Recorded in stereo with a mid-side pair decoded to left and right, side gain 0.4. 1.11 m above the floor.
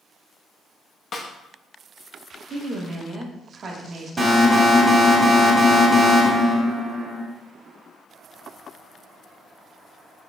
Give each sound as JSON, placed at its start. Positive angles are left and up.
{"t": 1.1, "sound": "a snare drum", "azimuth_deg": 55, "distance_m": 0.9}
{"t": 2.5, "sound": "a woman speaking", "azimuth_deg": -50, "distance_m": 1.6}
{"t": 4.2, "sound": "an alarm", "azimuth_deg": -25, "distance_m": 2.5}